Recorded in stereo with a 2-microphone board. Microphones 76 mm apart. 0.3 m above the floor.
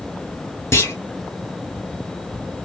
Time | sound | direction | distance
0.7 | a clunk | 35° left (ahead or behind) | 1.6 m